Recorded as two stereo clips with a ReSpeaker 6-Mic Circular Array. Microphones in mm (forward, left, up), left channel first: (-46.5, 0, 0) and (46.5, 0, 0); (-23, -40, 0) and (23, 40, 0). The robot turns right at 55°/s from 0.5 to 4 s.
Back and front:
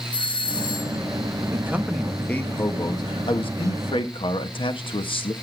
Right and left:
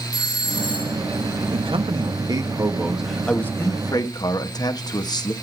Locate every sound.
0.1 s a doorbell: 150° right, 1.8 m; by 1.0 s 125° right, 1.8 m
1.5 s a man speaking: 60° left, 1.4 m; by 5.3 s 160° right, 1.4 m